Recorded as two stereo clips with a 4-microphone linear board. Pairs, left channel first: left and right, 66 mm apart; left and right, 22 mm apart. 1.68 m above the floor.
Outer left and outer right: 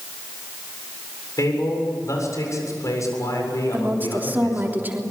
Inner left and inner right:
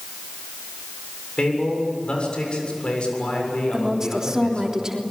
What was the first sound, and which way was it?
A man speaking, 55° left (ahead or behind).